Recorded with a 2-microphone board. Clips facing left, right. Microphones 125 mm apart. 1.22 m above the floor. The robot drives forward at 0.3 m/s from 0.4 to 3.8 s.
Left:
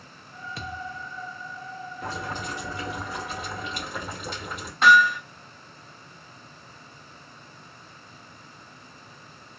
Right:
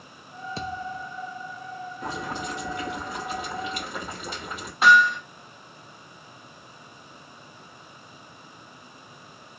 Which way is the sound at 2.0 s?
Centre (ahead or behind).